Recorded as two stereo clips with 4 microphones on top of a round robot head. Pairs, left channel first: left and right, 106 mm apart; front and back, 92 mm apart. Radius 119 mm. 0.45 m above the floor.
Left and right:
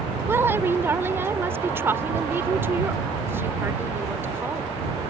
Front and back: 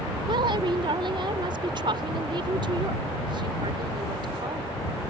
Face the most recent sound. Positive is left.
turn(degrees=-155)